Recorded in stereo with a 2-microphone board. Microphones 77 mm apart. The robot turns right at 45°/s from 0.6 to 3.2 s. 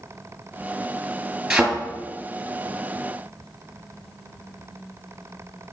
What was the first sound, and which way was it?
A thud, 5° right (ahead or behind).